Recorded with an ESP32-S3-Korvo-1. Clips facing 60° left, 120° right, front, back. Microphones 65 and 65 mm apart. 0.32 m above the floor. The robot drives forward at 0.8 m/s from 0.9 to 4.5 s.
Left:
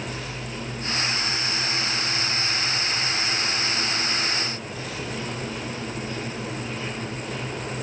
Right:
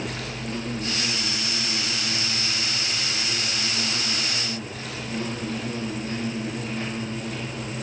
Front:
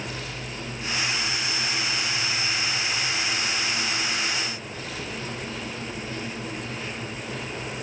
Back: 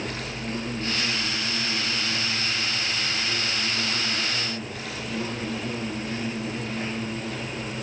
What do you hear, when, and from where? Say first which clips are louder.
0.0 s an insect: right 1 dB, back 3 dB; 145° right, 6.5 m; by 7.8 s 155° right, 9 m